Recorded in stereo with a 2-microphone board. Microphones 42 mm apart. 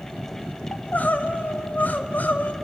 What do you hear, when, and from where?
0.7 s crying: 40° left (ahead or behind), 0.7 m